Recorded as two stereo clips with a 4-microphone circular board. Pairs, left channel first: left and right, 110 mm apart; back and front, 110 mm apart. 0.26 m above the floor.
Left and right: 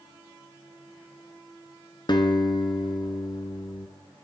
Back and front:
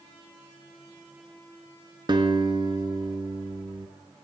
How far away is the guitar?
About 1.2 m.